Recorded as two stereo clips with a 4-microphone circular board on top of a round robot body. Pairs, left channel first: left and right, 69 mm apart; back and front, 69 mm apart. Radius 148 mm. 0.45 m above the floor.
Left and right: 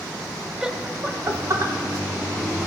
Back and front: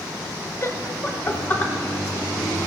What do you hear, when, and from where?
0.6 s laughter: 170° right, 1.3 m; by 1.7 s 115° right, 2 m